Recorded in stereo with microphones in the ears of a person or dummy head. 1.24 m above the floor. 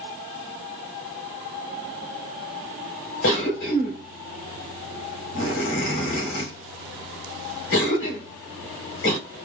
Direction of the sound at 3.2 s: 50° left (ahead or behind).